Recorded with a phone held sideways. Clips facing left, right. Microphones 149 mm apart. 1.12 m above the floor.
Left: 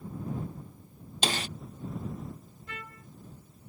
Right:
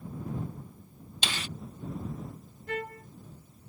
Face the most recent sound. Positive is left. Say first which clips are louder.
# right 11 dB
turn(degrees=-55)  # may be behind; listen again after turning